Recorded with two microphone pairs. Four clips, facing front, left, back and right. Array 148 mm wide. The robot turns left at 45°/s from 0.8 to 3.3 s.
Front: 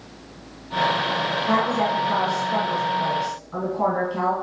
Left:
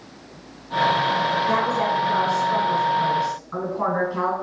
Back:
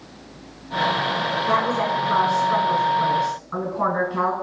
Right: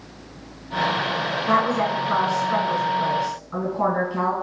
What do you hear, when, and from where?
1.5 s a woman speaking: 120° right, 1.6 m; by 4.3 s 160° left, 1.6 m